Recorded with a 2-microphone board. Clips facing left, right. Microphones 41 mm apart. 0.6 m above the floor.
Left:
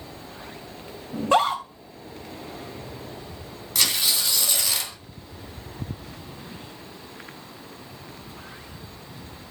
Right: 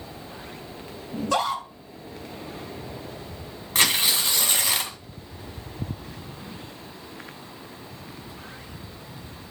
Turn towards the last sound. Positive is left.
turn(degrees=-35)  # may be behind; listen again after turning